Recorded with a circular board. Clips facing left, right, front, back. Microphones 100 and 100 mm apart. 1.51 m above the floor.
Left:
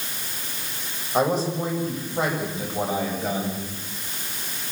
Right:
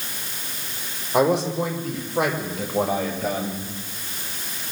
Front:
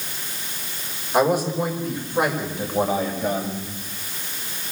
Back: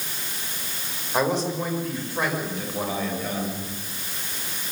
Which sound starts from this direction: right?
A man speaking, at 1.1 s.